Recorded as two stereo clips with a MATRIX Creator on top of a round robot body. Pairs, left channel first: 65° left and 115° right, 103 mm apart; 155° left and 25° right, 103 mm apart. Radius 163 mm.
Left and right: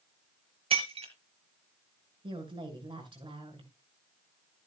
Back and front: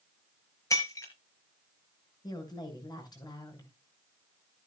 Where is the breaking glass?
140° right, 4 m.